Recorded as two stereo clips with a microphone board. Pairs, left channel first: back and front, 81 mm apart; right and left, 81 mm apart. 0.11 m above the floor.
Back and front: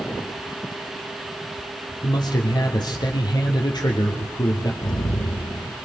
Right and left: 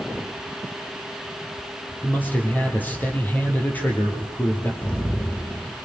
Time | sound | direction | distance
2.0 | a man speaking | 155° right | 4 m
4.8 | an explosion | 165° right | 3.5 m